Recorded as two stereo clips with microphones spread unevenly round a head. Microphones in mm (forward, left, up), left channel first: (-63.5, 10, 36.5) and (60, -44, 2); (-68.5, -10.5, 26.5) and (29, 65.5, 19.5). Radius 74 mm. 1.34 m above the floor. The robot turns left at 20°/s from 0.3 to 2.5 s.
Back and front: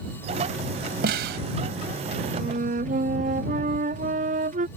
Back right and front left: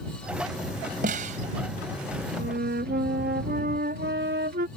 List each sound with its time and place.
1.0 s a snare drum: straight ahead; by 1.4 s 10° right
2.4 s a flute: 20° left